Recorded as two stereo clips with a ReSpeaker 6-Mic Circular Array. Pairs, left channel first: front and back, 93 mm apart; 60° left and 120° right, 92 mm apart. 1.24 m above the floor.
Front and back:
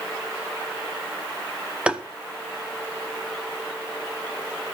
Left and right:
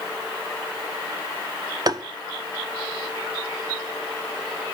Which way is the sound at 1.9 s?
110° right.